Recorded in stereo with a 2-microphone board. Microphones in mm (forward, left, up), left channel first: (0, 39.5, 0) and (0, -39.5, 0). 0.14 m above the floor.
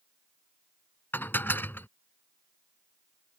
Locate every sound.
1.1 s dishes clattering: 30° left (ahead or behind)